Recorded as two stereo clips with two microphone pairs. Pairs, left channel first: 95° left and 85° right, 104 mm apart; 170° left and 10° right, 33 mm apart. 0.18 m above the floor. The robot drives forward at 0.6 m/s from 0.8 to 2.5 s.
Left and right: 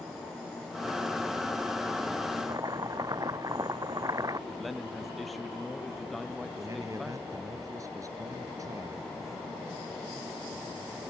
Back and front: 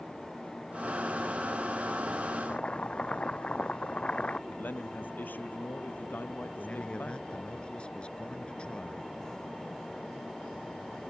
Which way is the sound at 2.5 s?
135° right.